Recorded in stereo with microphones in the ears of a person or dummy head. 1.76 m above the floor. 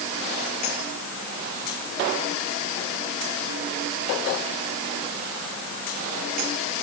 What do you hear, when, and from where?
Only background noise.